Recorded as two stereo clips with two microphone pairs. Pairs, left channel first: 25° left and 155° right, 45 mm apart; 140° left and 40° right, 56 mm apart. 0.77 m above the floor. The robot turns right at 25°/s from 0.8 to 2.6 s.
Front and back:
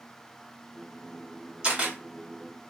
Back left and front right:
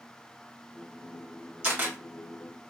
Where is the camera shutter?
90° right, 1.7 m; by 2.0 s 85° right, 1.7 m.